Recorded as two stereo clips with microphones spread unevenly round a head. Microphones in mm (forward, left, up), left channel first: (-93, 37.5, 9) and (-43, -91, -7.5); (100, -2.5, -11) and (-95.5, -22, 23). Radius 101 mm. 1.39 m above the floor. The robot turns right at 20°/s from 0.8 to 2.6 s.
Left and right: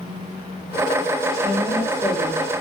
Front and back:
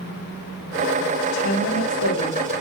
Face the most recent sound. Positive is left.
turn(degrees=40)